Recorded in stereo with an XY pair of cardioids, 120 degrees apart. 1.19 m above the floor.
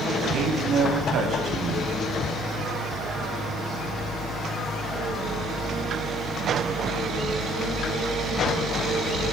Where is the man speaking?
55° right, 8.5 m.